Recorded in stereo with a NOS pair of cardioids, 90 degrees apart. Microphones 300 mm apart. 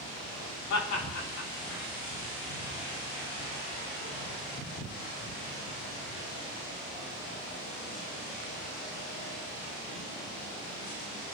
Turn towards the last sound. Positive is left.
turn(degrees=70)